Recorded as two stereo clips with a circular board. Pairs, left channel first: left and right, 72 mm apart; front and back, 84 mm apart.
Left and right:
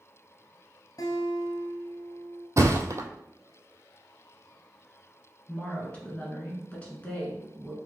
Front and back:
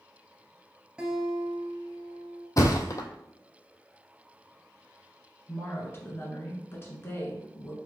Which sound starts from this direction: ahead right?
A thud, at 2.6 s.